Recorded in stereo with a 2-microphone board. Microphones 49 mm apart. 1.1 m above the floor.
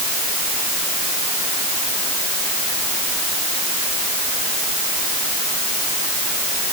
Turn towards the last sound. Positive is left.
No sound to turn to.